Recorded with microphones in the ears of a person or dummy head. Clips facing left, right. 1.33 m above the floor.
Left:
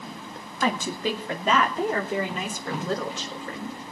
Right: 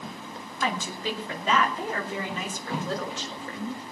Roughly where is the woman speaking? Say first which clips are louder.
Left 4 dB; left.